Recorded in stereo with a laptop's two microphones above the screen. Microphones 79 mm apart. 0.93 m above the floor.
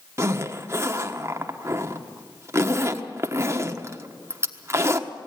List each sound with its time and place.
0.2 s a zipper: 35° right (ahead or behind), 1.3 m